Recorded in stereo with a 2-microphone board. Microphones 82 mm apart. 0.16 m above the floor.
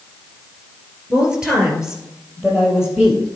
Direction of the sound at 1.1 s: 15° right (ahead or behind).